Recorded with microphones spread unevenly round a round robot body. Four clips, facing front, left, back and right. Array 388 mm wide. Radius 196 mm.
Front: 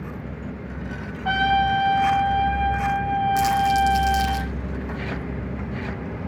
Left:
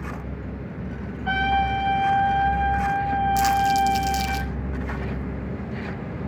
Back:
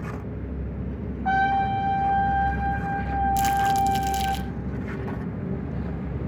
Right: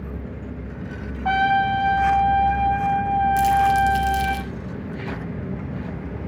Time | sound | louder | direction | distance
1.2 | a trumpet | right 4 dB, front 2 dB | 80° right | 5 m
3.4 | crumpling | right 2 dB, front 1 dB | 165° left | 1.1 m